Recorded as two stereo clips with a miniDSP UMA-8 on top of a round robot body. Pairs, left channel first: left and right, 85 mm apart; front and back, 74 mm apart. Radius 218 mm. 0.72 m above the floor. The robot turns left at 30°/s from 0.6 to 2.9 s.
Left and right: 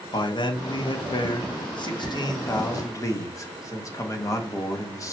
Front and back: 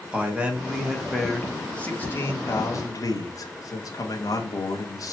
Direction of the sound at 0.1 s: 110° left.